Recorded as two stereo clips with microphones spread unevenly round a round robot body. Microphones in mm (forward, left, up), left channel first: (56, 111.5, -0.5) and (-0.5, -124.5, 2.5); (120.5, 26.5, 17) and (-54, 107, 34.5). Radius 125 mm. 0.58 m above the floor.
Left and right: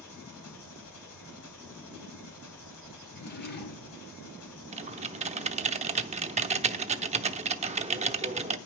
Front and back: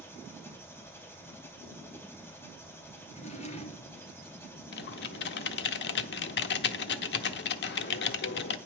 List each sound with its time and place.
0.0 s an engine running: 50° left, 4 m
3.1 s a drawer: 30° left, 3 m
4.7 s typing on a keyboard: 40° right, 0.8 m